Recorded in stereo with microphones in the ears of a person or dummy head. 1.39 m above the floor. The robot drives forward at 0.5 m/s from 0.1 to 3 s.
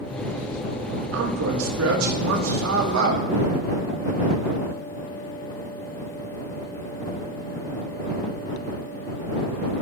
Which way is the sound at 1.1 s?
80° right.